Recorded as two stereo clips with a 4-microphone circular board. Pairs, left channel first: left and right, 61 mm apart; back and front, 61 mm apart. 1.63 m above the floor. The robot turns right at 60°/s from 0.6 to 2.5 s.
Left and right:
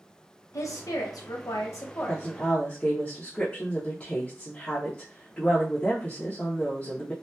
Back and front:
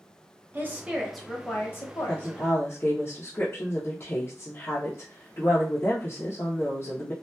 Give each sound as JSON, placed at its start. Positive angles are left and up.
{"t": 0.5, "sound": "a woman speaking", "azimuth_deg": 55, "distance_m": 0.8}
{"t": 2.1, "sound": "a woman speaking", "azimuth_deg": 125, "distance_m": 0.7}